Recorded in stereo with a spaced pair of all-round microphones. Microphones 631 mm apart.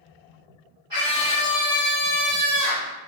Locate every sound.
0.9 s a scream: 50° right (ahead or behind), 3 m; by 2.9 s 25° right (ahead or behind), 2.5 m